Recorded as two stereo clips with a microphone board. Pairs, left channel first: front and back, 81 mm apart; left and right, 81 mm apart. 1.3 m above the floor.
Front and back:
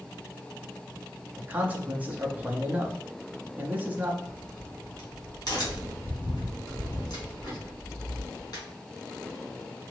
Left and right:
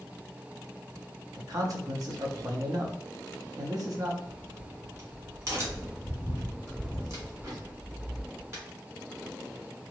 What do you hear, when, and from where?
1.4 s a man speaking: 115° right, 0.8 m
4.2 s a crack: 40° right, 1.7 m